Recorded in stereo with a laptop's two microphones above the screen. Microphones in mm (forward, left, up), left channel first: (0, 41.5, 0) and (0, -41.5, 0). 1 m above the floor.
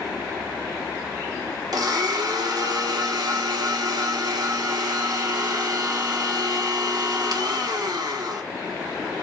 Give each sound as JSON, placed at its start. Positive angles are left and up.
{"t": 1.7, "sound": "a blender", "side_deg": -55, "distance_m": 0.8}